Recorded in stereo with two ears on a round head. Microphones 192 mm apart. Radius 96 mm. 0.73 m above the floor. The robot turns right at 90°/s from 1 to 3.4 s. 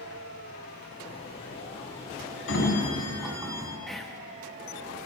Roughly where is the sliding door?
Behind left.